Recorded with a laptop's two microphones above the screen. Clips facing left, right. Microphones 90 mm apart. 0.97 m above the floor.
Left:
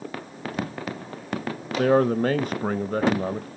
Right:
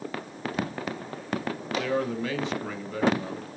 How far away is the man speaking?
About 0.8 m.